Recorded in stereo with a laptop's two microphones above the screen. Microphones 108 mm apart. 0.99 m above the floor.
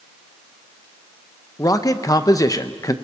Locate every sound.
1.6 s a man speaking: 35° left (ahead or behind), 0.8 m